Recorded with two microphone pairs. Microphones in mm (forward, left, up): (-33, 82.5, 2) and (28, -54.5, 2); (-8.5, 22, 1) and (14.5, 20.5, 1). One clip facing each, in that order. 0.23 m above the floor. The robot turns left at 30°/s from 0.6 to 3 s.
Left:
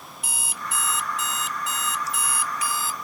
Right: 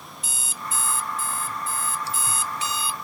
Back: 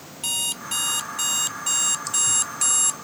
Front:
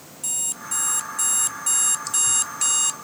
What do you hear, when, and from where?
0.2 s an alarm clock: 140° left; by 3.0 s 70° left